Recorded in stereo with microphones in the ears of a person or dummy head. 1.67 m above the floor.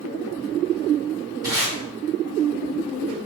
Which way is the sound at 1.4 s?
15° right (ahead or behind).